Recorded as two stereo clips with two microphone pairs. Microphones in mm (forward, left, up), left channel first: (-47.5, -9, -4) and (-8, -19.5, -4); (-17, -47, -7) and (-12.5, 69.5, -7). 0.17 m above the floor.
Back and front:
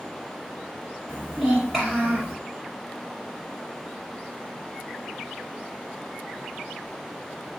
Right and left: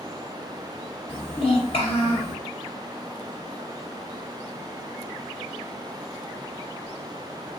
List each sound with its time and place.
1.1 s a child speaking: 110° right, 1.9 m